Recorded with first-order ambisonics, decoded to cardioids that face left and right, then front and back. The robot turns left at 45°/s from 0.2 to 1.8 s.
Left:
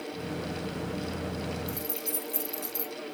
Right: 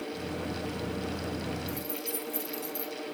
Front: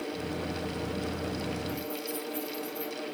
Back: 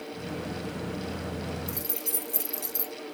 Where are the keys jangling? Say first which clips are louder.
Even, front 1 dB; 165° left, 0.6 m; by 2.9 s 160° left, 0.6 m.